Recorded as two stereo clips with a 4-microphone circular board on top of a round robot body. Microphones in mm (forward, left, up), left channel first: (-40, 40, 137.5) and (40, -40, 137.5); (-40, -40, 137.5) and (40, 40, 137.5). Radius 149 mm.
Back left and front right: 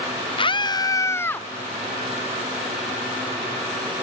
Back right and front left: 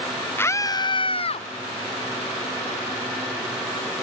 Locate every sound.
0.4 s a scream: 160° left; by 1.5 s 150° right